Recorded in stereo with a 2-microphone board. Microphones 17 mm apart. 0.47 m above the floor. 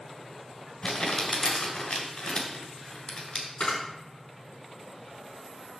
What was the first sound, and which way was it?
Crumpling, 55° left (ahead or behind).